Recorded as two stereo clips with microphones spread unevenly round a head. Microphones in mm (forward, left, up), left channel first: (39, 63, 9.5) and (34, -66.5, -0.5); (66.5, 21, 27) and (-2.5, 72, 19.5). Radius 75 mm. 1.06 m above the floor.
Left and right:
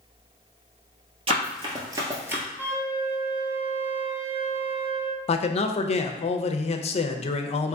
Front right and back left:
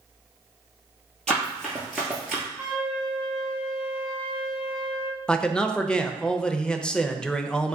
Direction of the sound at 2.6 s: 155° right.